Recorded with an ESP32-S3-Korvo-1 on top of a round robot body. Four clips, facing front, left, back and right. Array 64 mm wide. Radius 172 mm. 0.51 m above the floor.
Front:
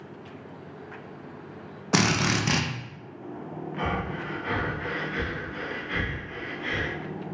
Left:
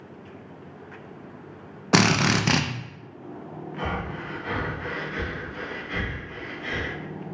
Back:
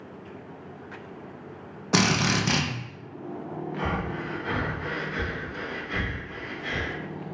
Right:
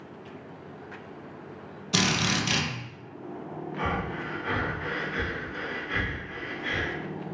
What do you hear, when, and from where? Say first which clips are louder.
1.9 s a drill: left 6 dB, back 1 dB; 85° left, 0.5 m
3.8 s breathing: even, front 1 dB; 20° right, 1.3 m